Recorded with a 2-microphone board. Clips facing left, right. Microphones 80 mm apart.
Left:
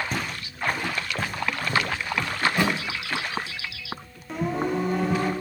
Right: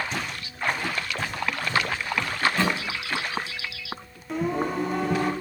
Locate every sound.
0.1 s footsteps: 45° left (ahead or behind), 2 m
2.4 s a thud: 20° left (ahead or behind), 3 m
4.3 s singing: centre (ahead or behind), 1.9 m